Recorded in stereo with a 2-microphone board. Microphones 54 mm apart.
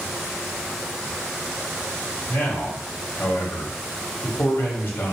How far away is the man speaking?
About 1.7 m.